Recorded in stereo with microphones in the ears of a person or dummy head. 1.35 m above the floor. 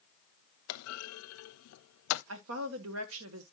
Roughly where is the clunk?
Left.